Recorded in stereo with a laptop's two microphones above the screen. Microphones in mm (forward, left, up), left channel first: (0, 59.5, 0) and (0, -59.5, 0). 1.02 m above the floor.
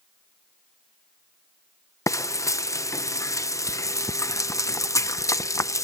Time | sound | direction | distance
2.1 | frying | 25° left (ahead or behind) | ?